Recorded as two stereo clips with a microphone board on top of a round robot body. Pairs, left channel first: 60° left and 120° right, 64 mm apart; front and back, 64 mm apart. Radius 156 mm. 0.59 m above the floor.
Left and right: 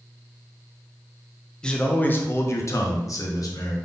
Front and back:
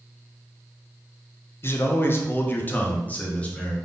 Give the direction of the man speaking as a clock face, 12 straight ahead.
12 o'clock.